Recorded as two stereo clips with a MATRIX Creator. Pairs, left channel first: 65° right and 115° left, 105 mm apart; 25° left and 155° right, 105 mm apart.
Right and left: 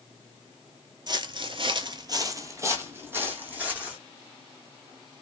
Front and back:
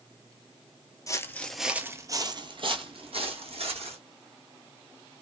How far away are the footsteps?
About 0.5 m.